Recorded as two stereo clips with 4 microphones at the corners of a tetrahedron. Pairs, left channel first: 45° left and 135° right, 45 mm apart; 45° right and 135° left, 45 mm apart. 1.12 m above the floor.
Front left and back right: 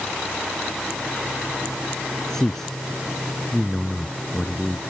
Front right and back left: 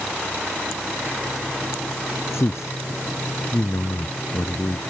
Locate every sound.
2.3 s a man speaking: 35° right; by 4.8 s 45° right